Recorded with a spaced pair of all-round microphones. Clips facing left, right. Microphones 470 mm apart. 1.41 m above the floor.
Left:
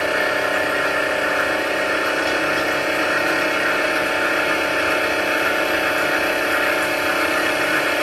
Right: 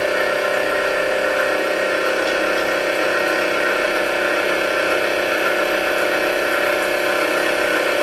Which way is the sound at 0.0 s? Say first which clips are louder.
Right 3 dB; 25° left (ahead or behind).